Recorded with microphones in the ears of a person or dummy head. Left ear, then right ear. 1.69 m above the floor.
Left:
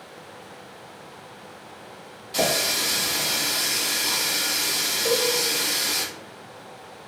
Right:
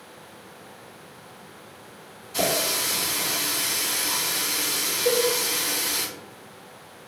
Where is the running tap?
50° left (ahead or behind), 1.8 m.